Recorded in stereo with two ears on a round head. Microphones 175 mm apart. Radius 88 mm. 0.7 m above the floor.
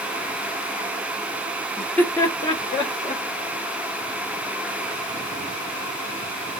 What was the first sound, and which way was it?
Laughter, 5° left (ahead or behind).